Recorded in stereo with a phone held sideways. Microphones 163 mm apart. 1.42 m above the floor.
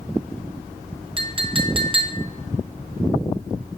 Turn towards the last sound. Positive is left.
turn(degrees=-30)  # may be behind; listen again after turning